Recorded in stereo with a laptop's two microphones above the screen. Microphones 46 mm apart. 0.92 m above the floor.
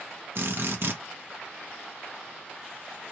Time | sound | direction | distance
0.3 | a drill | 55° right (ahead or behind) | 1.0 m